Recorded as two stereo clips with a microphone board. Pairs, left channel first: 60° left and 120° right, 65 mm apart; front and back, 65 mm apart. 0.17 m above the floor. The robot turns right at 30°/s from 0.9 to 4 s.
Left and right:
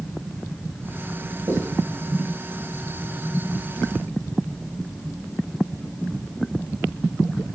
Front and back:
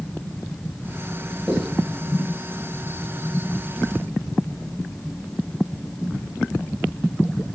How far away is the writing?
About 1.5 m.